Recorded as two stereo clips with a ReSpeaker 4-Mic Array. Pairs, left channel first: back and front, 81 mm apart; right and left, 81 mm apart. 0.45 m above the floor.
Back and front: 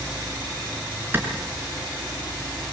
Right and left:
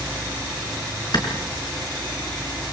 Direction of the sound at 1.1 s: 65° right.